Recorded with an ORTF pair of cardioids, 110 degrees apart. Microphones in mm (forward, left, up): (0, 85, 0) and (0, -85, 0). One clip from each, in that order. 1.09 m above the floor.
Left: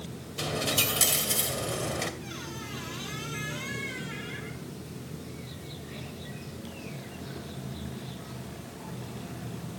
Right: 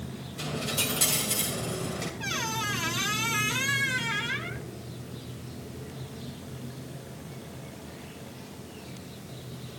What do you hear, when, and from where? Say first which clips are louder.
0.4 s a dropped coin: left 3 dB; 40° left, 2 m
2.2 s a squeak: right 10 dB; 70° right, 1.2 m